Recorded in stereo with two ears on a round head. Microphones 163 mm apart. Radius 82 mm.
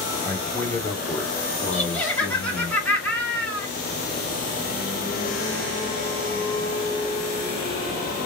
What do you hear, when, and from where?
0.2 s a man speaking: 5° left (ahead or behind), 1.4 m; by 2.7 s 60° left (ahead or behind), 1.1 m
1.7 s laughter: 5° left (ahead or behind), 1.7 m